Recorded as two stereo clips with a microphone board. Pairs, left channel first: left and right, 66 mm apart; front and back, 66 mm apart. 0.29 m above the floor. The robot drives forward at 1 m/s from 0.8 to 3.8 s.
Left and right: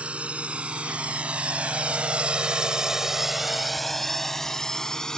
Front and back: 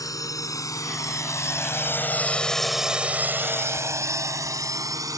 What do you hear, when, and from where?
0.0 s a drone: 20° right; by 5.2 s 170° left